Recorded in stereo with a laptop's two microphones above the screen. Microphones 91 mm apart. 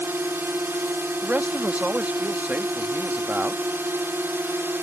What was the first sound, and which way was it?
A drone, 25° right (ahead or behind).